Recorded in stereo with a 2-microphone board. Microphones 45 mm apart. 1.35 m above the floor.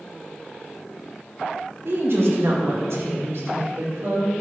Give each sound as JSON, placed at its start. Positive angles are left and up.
{"t": 1.9, "sound": "a woman speaking", "side_deg": -60, "distance_m": 1.6}